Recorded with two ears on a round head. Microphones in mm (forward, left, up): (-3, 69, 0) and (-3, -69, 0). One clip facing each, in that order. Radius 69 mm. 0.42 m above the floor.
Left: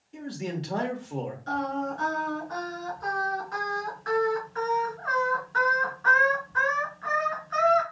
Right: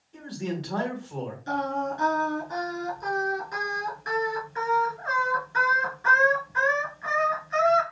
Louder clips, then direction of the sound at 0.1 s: Right 1 dB; 25° left (ahead or behind).